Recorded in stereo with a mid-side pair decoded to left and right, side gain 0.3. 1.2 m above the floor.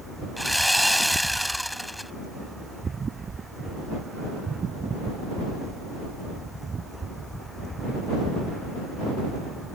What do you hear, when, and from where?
0.4 s sawing: straight ahead